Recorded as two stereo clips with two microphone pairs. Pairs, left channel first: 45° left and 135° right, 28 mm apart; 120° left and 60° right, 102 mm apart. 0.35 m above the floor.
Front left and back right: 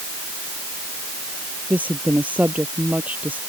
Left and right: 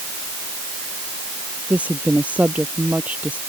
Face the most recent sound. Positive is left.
turn(degrees=-135)